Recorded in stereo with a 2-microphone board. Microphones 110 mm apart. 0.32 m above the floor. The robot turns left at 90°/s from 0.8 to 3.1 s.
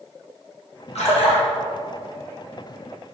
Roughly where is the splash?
Left.